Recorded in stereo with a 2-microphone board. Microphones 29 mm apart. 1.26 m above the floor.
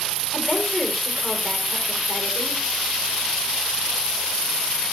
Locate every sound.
0.3 s a woman speaking: 30° left (ahead or behind), 4 m